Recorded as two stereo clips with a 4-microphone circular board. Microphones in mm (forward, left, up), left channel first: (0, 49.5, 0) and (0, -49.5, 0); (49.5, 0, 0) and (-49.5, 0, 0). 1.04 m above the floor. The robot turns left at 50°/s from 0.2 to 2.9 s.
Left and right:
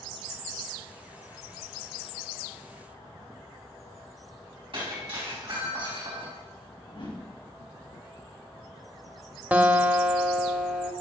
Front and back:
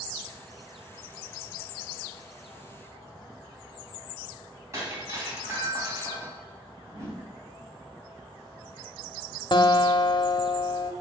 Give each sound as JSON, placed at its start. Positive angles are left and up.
{"t": 4.7, "sound": "breaking glass", "azimuth_deg": -120, "distance_m": 3.0}
{"t": 6.9, "sound": "a whoosh", "azimuth_deg": 120, "distance_m": 3.5}
{"t": 9.5, "sound": "a guitar", "azimuth_deg": -20, "distance_m": 0.8}